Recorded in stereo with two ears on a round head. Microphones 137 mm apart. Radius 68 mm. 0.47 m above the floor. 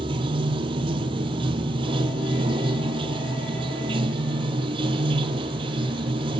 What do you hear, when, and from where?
0.0 s running water: 30° right (ahead or behind), 1.3 m